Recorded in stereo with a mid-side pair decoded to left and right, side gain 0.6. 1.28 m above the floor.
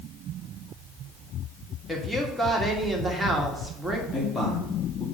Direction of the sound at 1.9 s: 15° right.